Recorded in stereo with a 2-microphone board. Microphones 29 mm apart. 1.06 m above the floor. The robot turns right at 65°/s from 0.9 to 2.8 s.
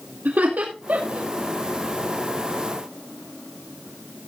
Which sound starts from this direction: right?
Laughter, at 0.2 s.